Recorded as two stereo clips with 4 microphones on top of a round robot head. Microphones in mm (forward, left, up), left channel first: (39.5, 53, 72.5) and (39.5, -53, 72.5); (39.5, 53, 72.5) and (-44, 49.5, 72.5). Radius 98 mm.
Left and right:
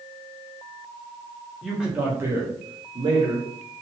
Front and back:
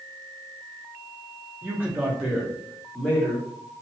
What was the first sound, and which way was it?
A man speaking, 175° right.